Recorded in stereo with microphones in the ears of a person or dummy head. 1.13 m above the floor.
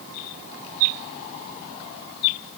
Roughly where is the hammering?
I don't hear hammering.